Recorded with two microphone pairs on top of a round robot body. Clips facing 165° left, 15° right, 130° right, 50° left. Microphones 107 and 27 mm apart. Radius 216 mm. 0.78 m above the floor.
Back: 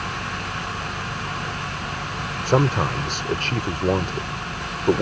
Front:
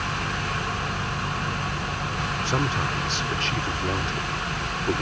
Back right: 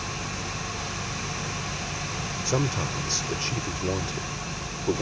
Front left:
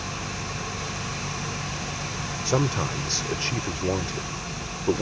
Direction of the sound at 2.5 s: 125° left.